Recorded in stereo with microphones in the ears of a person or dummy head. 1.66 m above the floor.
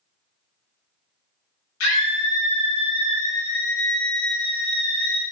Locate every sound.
1.8 s a scream: 70° left (ahead or behind), 1.3 m